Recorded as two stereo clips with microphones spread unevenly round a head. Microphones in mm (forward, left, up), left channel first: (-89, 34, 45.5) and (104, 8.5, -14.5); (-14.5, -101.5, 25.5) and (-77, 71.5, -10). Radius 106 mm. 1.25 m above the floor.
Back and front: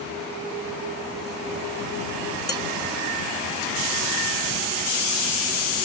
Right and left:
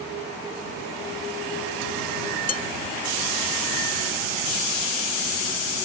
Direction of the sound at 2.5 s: 115° right.